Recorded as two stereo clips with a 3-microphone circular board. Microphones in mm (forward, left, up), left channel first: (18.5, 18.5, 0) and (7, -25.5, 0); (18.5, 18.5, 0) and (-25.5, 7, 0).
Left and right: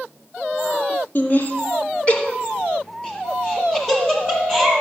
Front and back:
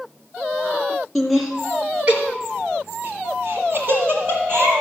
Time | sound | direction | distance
1.1 | laughter | 105° left | 3 m